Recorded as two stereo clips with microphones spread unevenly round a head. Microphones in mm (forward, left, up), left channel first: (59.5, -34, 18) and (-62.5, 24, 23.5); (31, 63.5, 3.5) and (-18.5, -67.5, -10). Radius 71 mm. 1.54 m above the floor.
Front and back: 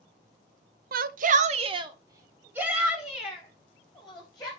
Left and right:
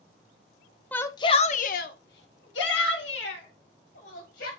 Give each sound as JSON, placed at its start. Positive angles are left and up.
{"t": 0.9, "sound": "a shout", "azimuth_deg": 150, "distance_m": 0.7}